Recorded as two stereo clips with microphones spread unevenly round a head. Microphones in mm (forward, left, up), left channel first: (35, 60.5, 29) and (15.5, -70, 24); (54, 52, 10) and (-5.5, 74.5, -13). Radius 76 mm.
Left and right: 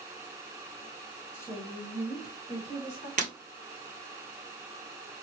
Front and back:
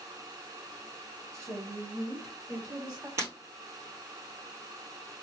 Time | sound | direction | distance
1.3 | a woman speaking | 150° left | 1.1 m
3.2 | breaking glass | 130° right | 1.6 m